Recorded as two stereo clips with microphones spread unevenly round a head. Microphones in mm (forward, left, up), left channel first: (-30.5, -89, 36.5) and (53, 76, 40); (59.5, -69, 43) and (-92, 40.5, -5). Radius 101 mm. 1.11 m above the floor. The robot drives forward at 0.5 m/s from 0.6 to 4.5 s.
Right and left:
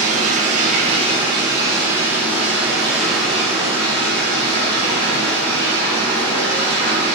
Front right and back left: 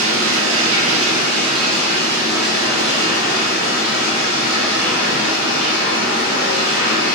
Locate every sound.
0.0 s running water: 115° left, 1.0 m; by 7.2 s 160° left, 2.5 m